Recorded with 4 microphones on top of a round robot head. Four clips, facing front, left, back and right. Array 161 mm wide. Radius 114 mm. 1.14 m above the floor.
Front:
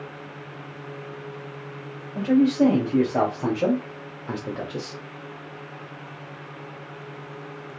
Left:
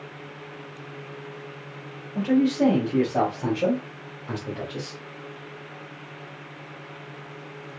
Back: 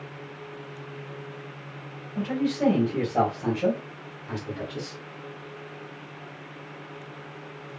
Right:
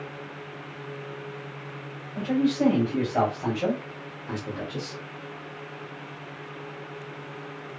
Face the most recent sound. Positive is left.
turn(degrees=0)